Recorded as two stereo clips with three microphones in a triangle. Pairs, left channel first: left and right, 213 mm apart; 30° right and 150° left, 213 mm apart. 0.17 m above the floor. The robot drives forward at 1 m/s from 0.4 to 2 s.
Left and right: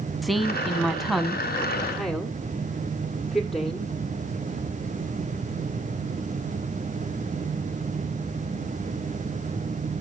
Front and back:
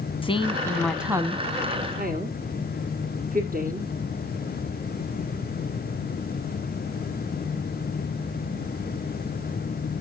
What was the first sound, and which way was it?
A woman speaking, straight ahead.